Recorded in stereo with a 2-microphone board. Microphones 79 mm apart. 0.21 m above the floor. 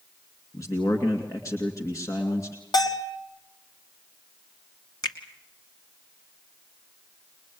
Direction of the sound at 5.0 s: 60° left (ahead or behind).